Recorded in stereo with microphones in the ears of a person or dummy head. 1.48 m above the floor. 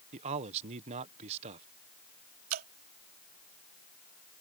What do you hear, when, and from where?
0.1 s a man speaking: 35° right (ahead or behind)
2.5 s dripping: 50° right (ahead or behind)